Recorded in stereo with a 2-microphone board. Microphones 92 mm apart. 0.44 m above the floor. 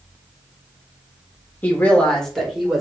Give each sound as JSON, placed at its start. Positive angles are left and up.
{"t": 1.6, "sound": "a woman speaking", "side_deg": 20, "distance_m": 1.2}